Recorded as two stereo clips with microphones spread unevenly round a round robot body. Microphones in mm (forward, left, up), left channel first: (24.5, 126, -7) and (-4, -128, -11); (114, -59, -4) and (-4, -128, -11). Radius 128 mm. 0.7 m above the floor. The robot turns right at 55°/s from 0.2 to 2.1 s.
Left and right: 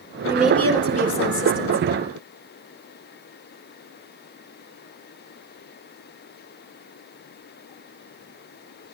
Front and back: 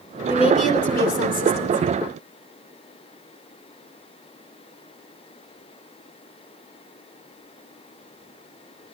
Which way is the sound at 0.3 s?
20° right.